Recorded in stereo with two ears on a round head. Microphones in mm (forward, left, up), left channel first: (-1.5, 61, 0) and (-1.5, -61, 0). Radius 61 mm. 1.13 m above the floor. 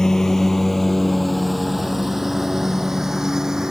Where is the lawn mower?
5° left (ahead or behind); by 3.7 s 5° right (ahead or behind).